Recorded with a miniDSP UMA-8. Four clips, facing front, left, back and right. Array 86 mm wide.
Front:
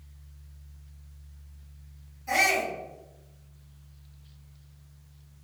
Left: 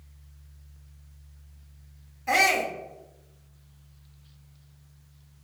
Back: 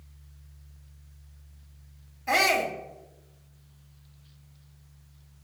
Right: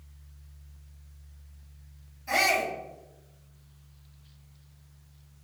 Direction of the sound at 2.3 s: 130° left.